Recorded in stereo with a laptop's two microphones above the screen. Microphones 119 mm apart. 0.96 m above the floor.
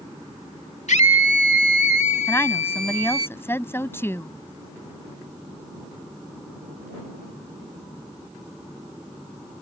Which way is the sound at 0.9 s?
75° left (ahead or behind).